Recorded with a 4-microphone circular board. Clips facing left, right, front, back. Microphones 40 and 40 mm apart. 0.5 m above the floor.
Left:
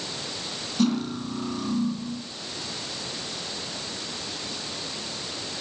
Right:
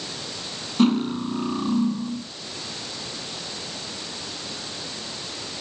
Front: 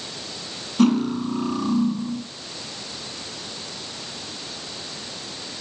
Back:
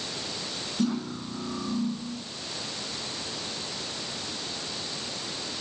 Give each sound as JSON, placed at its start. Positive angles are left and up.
{"t": 0.8, "sound": "cutlery clinking", "azimuth_deg": -35, "distance_m": 3.5}